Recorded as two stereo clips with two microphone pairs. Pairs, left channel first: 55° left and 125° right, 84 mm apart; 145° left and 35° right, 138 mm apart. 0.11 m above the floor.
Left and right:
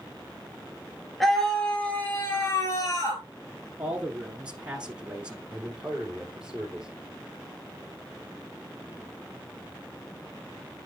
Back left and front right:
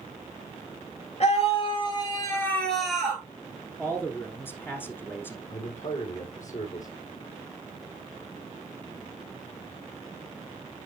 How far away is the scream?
About 1.8 m.